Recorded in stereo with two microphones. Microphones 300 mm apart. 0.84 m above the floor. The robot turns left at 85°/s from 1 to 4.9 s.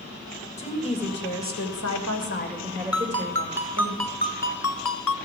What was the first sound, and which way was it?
A woman speaking, 155° left.